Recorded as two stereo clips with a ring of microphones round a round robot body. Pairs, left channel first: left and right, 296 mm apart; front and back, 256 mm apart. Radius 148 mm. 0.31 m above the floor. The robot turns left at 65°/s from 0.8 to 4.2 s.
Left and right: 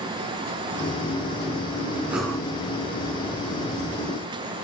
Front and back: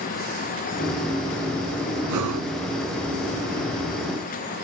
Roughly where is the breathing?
Behind.